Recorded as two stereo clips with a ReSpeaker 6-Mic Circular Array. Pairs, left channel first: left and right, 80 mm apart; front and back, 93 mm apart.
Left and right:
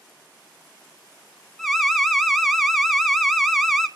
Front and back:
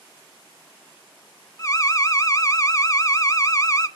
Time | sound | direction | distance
1.6 | an alarm | straight ahead | 1.0 m